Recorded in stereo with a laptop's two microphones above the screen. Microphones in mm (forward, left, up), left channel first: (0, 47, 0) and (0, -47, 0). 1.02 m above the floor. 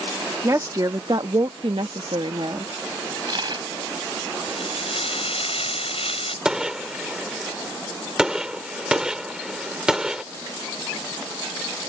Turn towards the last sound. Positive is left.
turn(degrees=-10)  # may be behind; listen again after turning